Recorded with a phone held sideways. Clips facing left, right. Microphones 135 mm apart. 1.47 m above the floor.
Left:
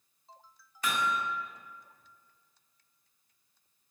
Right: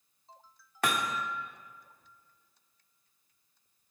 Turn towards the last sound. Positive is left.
turn(degrees=-70)  # may be behind; listen again after turning